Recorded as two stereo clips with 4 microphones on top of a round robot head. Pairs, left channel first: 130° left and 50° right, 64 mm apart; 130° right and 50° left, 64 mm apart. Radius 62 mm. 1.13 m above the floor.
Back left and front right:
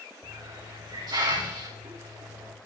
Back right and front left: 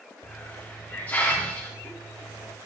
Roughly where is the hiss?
Ahead right.